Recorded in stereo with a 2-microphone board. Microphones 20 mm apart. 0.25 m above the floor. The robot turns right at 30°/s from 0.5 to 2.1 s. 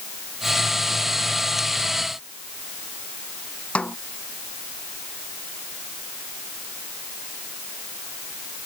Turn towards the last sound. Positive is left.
turn(degrees=75)  # may be behind; listen again after turning